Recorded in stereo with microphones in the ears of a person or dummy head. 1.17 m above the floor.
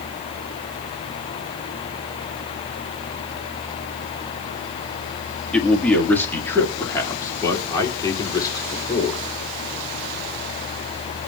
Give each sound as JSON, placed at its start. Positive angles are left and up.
{"t": 5.5, "sound": "a man speaking", "side_deg": 0, "distance_m": 1.6}